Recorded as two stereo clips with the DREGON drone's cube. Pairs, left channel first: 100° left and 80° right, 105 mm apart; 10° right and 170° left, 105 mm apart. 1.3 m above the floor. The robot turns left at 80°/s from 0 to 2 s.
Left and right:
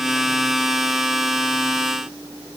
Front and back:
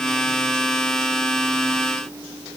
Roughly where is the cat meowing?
No cat meowing in this recording.